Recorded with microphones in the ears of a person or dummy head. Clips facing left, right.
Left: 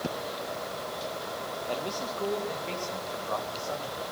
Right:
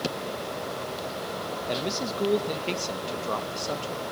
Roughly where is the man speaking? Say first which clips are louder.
Right 4 dB; right.